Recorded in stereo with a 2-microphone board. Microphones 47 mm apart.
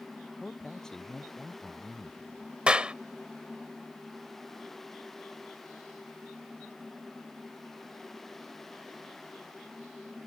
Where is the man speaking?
10° left (ahead or behind).